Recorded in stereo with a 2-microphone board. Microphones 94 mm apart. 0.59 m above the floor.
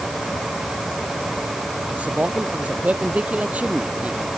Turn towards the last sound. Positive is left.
turn(degrees=-15)  # may be behind; listen again after turning